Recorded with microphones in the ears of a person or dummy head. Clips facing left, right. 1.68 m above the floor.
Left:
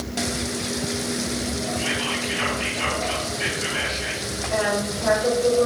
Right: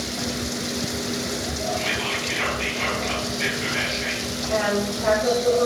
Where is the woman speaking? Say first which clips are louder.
Right 1 dB; 75° right (ahead or behind), 3.5 m.